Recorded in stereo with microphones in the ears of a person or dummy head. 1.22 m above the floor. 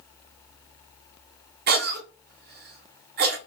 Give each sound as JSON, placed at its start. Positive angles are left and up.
{"t": 1.7, "sound": "a cough", "side_deg": -50, "distance_m": 0.8}